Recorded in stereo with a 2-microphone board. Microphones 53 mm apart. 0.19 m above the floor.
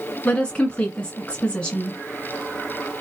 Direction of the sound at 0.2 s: 20° left (ahead or behind).